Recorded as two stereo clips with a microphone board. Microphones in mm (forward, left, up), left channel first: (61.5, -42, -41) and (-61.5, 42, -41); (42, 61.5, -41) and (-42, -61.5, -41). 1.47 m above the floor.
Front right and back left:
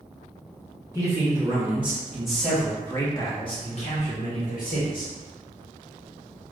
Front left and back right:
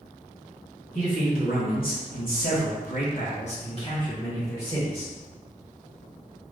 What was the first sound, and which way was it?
A man speaking, 75° left.